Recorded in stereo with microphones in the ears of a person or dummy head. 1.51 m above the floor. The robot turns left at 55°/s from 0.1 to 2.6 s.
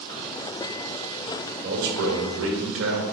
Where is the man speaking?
45° right, 1.4 m; by 3.0 s 100° right, 1.4 m.